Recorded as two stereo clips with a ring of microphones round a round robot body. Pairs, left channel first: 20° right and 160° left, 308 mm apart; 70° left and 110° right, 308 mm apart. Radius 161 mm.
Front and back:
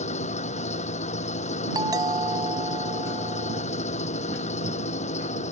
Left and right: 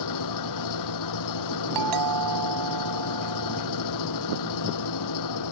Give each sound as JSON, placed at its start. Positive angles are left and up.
{"t": 0.0, "sound": "an engine running", "azimuth_deg": 45}
{"t": 1.8, "sound": "a doorbell", "azimuth_deg": -125}